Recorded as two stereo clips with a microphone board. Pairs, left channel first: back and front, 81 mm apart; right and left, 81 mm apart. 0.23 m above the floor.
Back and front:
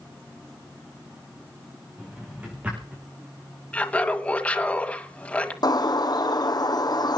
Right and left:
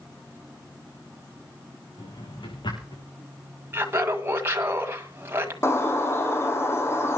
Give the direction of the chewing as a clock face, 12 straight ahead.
No chewing in this recording.